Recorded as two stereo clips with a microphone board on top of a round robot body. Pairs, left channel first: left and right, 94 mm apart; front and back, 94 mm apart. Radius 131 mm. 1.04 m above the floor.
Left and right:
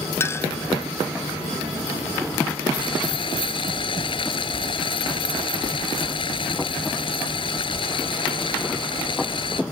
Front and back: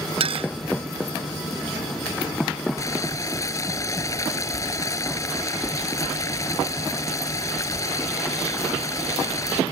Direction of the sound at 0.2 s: 155° left.